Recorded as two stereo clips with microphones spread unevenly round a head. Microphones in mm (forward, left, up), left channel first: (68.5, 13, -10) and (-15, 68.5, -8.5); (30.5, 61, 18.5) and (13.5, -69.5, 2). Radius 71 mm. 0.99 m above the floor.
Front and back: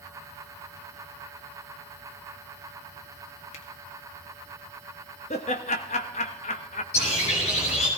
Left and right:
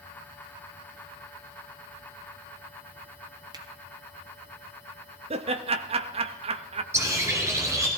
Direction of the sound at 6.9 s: 30° right.